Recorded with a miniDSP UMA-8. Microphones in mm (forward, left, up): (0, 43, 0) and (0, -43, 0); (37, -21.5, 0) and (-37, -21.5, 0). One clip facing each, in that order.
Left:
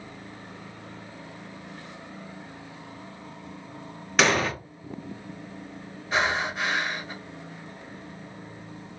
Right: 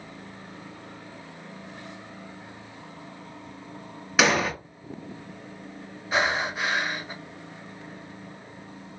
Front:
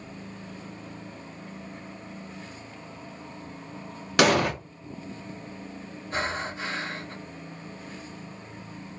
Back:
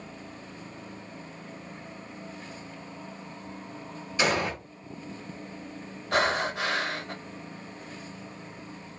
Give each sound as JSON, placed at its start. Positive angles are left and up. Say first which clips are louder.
{"t": 4.2, "sound": "an explosion", "louder": "even, front 6 dB", "azimuth_deg": -5, "distance_m": 0.6}
{"t": 6.1, "sound": "breathing", "louder": "even, back 5 dB", "azimuth_deg": -175, "distance_m": 0.6}